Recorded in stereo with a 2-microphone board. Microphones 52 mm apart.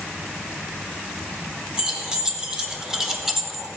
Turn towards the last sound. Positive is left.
turn(degrees=0)  # may be behind; listen again after turning